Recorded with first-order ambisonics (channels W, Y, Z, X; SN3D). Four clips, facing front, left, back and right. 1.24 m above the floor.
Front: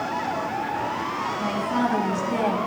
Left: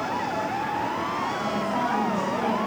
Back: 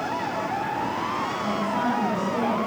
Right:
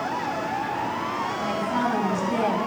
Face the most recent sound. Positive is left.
turn(degrees=-45)